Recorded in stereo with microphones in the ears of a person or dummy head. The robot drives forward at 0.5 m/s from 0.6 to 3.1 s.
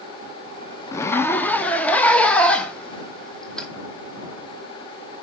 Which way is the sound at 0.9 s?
20° left (ahead or behind).